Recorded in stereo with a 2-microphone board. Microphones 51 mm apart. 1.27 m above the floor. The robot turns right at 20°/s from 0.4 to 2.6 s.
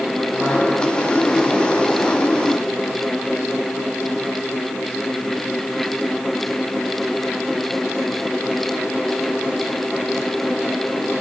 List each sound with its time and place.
Only background noise.